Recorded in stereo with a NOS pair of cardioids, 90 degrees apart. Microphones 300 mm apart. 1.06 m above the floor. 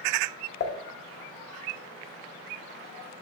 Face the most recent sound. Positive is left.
turn(degrees=45)